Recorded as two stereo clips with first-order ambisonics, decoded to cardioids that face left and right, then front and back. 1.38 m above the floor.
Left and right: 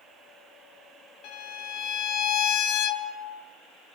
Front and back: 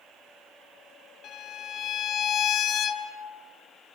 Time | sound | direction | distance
1.2 | a violin | 55° left | 1.8 m